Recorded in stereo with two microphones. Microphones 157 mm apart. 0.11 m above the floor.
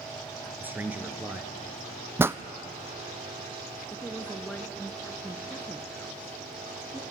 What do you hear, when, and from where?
0.6 s a man speaking: 10° right (ahead or behind), 1.9 m
2.2 s a pop: 15° right (ahead or behind), 0.7 m
3.9 s a woman speaking: 10° left (ahead or behind), 1.7 m